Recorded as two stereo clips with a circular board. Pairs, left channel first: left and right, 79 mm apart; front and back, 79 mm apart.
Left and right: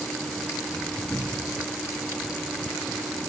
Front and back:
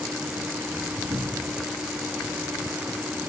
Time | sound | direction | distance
1.1 | a cupboard door | 165° left | 4 m